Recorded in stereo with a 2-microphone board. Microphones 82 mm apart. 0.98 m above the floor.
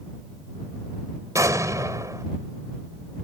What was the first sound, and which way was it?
An explosion, 40° right (ahead or behind).